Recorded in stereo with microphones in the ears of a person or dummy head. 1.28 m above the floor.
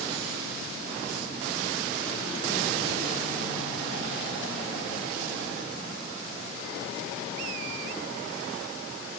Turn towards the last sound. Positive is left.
No sound to turn to.